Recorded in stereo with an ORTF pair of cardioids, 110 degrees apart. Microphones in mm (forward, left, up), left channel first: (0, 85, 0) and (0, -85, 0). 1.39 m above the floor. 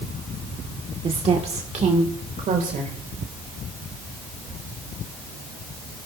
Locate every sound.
1.0 s a woman speaking: 30° right, 1.4 m; by 3.0 s 50° right, 2.5 m